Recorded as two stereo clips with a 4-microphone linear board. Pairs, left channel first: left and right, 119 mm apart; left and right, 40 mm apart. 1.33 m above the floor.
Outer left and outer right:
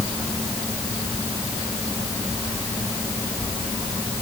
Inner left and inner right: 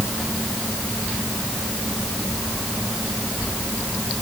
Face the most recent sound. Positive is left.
No sound to turn to.